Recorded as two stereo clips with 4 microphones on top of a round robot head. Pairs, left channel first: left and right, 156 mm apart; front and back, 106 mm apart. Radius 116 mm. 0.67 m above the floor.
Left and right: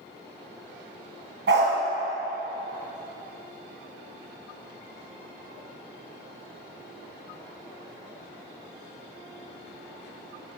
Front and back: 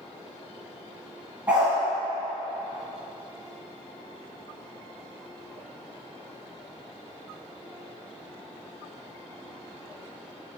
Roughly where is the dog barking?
Right.